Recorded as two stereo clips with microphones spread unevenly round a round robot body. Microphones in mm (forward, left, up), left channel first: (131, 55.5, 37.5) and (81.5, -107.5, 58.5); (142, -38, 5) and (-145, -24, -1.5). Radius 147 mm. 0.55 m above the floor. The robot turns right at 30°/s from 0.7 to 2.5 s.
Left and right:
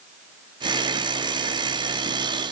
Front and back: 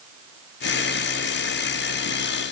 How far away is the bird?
I don't hear a bird.